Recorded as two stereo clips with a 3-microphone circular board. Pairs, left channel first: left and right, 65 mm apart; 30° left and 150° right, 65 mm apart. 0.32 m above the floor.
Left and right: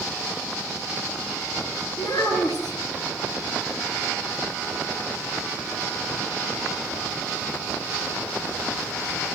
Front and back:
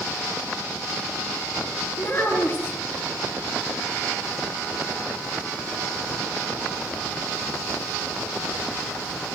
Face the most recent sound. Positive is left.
turn(degrees=85)